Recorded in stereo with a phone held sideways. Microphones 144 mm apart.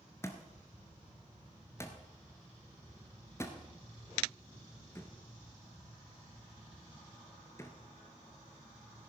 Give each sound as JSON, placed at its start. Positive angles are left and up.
{"t": 0.2, "sound": "a thud", "side_deg": 20, "distance_m": 1.3}